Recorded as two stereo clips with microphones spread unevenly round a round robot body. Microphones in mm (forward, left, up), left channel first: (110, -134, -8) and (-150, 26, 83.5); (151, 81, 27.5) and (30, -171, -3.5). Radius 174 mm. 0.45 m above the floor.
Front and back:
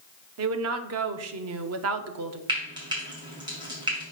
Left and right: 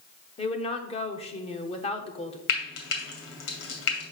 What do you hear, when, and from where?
0.4 s a woman speaking: 125° left, 0.8 m
2.5 s frying: 65° left, 2.5 m